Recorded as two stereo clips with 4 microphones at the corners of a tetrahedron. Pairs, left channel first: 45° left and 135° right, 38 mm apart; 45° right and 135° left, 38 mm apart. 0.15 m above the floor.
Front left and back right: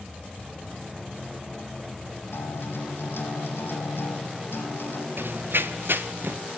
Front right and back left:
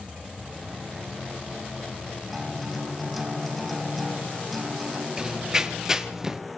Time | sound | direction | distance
2.3 | a guitar | 40° left | 6 m
5.2 | running footsteps | 155° right | 1.6 m